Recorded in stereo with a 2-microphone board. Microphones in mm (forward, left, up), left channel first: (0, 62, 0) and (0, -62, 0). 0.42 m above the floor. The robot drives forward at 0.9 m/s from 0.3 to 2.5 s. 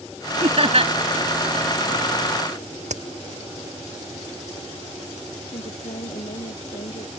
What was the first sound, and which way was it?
Laughter, 50° right (ahead or behind).